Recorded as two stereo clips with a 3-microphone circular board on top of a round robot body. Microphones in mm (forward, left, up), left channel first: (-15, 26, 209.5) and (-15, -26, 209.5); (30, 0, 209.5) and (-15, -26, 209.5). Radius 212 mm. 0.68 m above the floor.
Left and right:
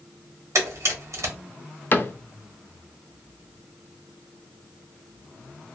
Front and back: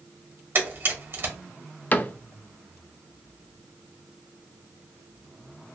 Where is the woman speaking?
I don't hear a woman speaking.